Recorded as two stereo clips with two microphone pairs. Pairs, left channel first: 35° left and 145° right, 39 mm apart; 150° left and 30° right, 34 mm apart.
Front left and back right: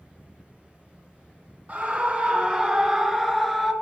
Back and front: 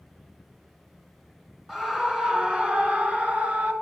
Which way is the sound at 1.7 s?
105° right.